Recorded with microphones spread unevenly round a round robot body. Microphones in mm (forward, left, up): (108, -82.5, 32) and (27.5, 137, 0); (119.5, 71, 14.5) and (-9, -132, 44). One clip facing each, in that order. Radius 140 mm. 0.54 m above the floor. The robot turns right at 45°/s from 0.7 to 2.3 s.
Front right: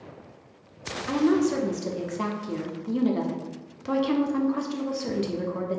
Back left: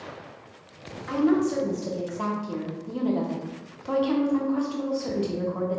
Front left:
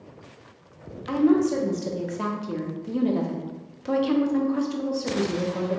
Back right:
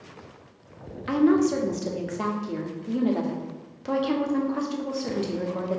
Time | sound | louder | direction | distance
1.1 | a woman speaking | even, even | 70° right | 0.7 m